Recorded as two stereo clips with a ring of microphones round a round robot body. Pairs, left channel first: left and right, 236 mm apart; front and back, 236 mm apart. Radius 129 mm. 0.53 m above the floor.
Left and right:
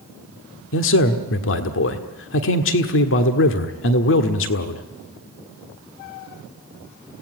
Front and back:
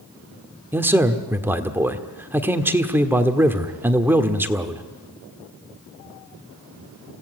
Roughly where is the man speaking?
Left.